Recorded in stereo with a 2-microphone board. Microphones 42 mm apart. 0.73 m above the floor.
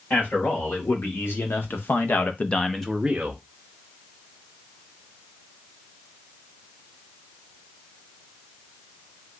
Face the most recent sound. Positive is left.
turn(degrees=-30)  # may be behind; listen again after turning